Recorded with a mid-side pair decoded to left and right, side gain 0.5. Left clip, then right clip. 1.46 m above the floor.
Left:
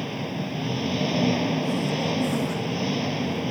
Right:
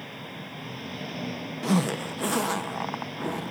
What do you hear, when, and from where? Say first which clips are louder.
0.0 s an engine running: left 8 dB; 60° left
1.6 s a zipper: left 2 dB; 65° right